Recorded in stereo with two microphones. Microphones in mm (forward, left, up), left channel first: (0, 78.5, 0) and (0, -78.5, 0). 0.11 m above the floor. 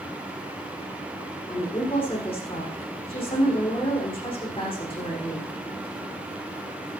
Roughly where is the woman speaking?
Left.